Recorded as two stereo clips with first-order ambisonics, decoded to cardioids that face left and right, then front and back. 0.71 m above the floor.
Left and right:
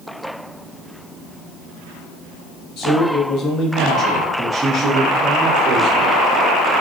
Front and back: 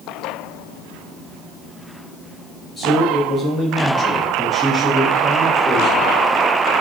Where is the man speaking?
70° left, 1.2 m; by 6.2 s 95° right, 1.4 m.